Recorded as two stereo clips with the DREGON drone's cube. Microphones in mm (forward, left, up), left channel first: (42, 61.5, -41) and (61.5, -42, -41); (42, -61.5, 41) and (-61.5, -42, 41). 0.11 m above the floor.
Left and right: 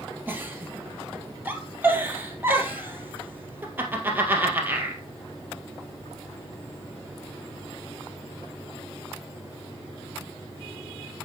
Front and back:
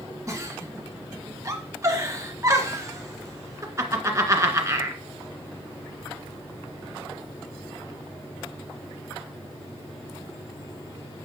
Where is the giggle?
140° right, 1.9 m.